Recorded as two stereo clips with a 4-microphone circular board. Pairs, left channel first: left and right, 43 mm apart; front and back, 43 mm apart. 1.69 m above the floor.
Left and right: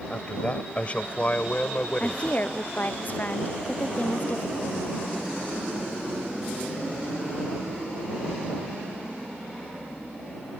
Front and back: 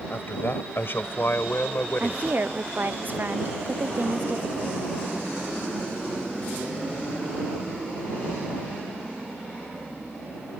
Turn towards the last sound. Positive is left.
turn(degrees=135)